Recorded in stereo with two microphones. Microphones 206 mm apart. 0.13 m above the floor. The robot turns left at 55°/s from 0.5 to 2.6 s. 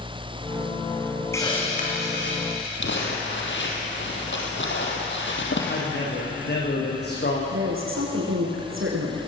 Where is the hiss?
170° left, 4.5 m; by 2.7 s 100° left, 4.5 m.